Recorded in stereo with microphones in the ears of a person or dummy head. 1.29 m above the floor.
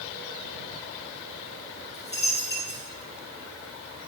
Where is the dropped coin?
15° left (ahead or behind), 2.5 m.